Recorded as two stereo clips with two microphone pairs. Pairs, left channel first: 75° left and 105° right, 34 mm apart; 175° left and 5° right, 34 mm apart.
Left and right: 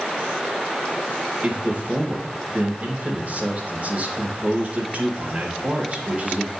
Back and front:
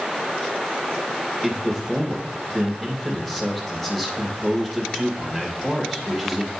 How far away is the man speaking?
About 2 m.